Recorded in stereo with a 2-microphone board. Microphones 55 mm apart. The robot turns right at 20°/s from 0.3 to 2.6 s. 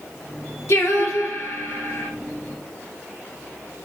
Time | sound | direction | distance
0.7 | singing | 55° left (ahead or behind) | 0.9 m